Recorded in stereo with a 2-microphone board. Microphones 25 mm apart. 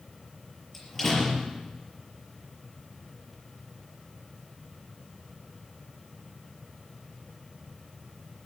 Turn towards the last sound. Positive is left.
turn(degrees=5)  # may be behind; listen again after turning